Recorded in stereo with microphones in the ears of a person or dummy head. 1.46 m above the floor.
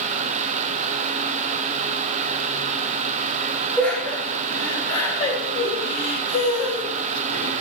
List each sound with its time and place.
3.8 s laughter: 5° left (ahead or behind), 3 m; by 7.5 s 70° left (ahead or behind), 2.0 m